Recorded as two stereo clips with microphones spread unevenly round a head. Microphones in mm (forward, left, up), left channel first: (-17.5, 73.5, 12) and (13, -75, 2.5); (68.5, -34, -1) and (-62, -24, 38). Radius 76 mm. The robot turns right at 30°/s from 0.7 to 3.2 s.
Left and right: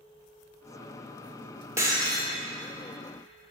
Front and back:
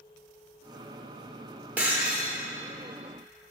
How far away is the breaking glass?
About 1.0 m.